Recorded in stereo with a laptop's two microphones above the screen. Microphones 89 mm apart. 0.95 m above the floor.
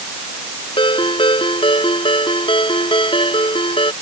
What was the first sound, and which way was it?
A ringtone, 80° left.